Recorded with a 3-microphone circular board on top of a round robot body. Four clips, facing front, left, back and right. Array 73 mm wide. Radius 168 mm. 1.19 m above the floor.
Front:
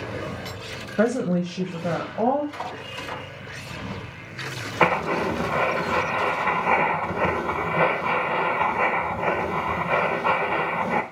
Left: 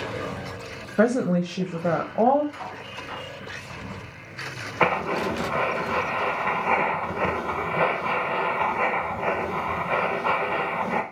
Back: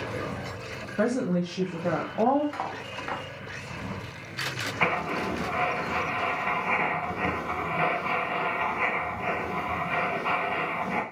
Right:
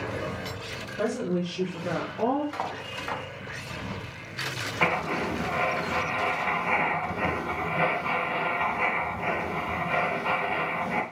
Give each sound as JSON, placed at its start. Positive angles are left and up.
{"t": 1.0, "sound": "a woman speaking", "azimuth_deg": 65, "distance_m": 0.8}
{"t": 2.5, "sound": "cutlery clinking", "azimuth_deg": -125, "distance_m": 1.0}
{"t": 4.8, "sound": "writing", "azimuth_deg": 35, "distance_m": 0.5}